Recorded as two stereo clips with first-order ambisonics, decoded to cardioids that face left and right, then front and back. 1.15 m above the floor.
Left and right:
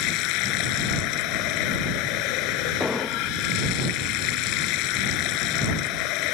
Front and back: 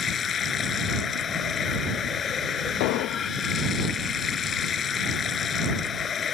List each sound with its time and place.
0.0 s running water: 65° left
2.8 s an explosion: 5° left